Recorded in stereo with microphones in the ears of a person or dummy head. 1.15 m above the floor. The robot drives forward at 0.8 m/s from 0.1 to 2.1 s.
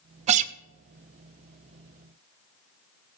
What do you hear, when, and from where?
0.3 s a guitar: 30° right (ahead or behind), 0.5 m; by 0.5 s 35° right (ahead or behind), 0.5 m